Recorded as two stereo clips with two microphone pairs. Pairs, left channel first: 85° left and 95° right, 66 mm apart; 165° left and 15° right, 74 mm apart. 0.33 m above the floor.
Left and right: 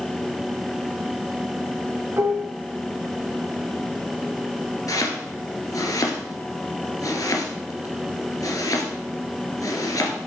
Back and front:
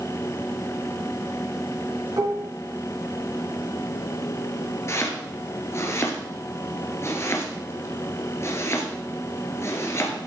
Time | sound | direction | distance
2.2 | dishes clattering | 45° right | 3 m
4.9 | chopping | 115° left | 2 m